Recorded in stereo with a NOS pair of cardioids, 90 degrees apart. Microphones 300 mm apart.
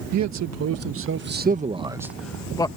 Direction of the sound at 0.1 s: 70° right.